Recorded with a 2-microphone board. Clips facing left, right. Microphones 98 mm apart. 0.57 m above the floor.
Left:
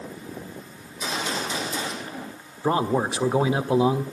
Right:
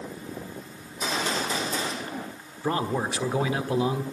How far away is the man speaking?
About 1.4 m.